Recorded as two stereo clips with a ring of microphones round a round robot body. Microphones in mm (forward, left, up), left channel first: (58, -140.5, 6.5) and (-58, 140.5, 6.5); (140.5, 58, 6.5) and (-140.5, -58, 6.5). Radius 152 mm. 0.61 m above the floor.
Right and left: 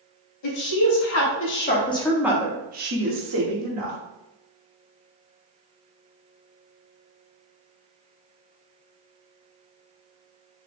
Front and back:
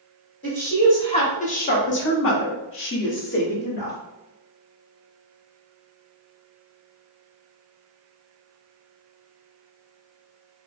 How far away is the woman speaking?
About 1.4 m.